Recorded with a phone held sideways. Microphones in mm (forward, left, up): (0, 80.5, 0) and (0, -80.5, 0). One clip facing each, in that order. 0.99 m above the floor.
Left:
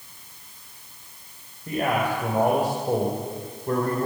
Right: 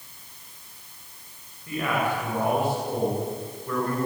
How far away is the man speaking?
About 6.5 m.